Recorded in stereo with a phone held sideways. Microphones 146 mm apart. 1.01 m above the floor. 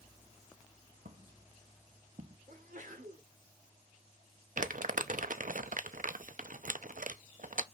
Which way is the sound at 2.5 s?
70° right (ahead or behind).